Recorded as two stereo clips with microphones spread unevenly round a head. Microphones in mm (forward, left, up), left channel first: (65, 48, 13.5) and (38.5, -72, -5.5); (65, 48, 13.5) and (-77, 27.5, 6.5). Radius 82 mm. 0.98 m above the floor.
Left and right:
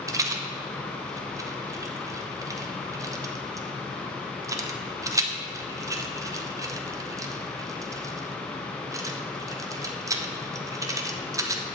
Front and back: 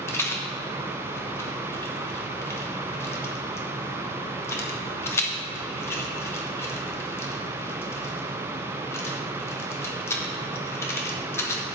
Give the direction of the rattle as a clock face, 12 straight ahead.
2 o'clock.